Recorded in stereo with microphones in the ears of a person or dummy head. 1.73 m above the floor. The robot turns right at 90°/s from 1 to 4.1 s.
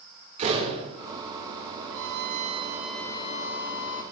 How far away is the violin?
About 1.3 m.